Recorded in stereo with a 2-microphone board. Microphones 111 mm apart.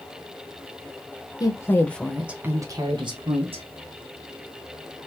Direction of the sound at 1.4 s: 35° left (ahead or behind).